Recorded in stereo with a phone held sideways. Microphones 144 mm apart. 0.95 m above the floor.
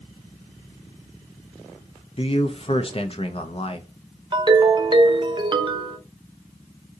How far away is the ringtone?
About 0.5 m.